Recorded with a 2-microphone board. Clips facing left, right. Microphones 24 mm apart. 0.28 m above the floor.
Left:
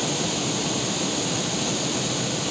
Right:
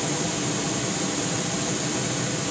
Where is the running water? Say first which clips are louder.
Left 1 dB; 30° left (ahead or behind), 2 m.